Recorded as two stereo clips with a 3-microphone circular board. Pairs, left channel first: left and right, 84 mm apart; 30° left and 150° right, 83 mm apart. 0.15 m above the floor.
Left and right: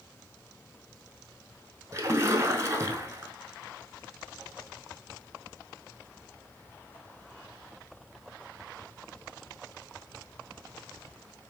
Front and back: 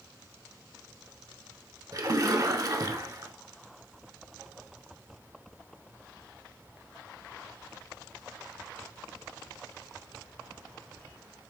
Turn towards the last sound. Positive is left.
turn(degrees=-130)